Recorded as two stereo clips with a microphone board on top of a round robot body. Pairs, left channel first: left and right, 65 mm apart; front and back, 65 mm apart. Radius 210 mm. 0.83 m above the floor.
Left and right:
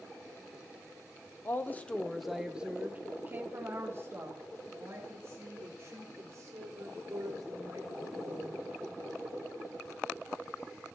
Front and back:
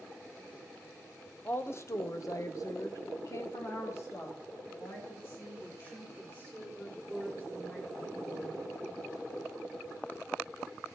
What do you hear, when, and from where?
1.4 s a woman speaking: 50° left, 1.1 m; by 8.6 s 55° right, 6 m